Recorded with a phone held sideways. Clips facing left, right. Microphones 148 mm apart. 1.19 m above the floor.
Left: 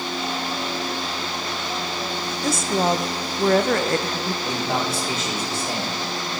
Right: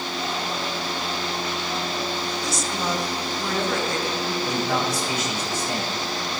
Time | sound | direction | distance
2.4 | a woman speaking | 55° left (ahead or behind) | 0.8 m
4.4 | a man speaking | 30° left (ahead or behind) | 3.5 m